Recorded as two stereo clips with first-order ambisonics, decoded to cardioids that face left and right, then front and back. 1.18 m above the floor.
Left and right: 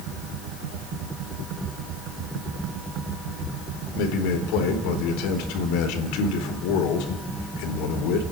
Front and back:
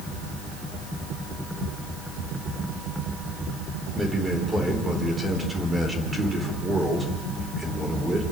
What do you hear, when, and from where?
4.0 s a man speaking: 100° left, 4 m